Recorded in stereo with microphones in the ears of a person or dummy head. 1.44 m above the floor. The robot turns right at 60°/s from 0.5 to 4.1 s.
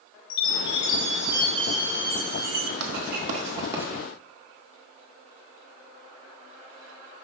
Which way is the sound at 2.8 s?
65° right (ahead or behind).